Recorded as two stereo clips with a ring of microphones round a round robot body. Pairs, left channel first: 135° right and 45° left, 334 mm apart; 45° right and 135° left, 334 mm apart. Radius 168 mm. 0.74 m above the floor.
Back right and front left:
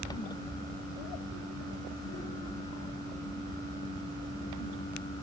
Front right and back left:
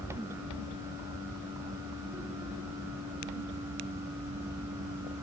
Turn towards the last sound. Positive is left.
No sound to turn to.